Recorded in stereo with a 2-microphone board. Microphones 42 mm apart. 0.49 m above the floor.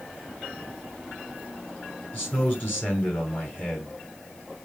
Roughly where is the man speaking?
Left.